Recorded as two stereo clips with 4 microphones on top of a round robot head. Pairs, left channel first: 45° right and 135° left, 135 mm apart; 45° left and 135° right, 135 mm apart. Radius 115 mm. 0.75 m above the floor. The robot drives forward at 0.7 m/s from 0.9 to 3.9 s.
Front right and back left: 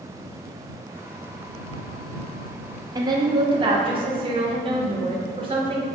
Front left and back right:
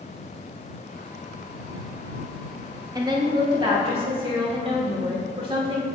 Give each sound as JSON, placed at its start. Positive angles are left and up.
{"t": 3.0, "sound": "a woman speaking", "azimuth_deg": 180, "distance_m": 1.0}